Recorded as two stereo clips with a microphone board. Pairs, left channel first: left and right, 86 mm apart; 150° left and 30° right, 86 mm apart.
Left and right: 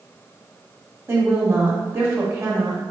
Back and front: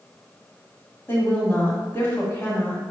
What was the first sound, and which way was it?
A woman speaking, 150° right.